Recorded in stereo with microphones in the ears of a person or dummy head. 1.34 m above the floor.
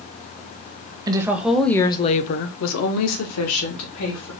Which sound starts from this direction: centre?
A woman speaking, at 1.1 s.